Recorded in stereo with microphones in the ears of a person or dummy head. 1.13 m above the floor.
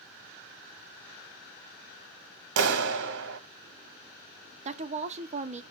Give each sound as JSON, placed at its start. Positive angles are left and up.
{"t": 2.6, "sound": "a clap", "side_deg": -75, "distance_m": 1.0}
{"t": 4.7, "sound": "a woman speaking", "side_deg": -35, "distance_m": 0.5}